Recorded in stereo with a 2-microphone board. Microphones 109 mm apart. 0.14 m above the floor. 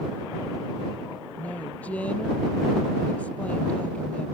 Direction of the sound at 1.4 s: 10° left (ahead or behind).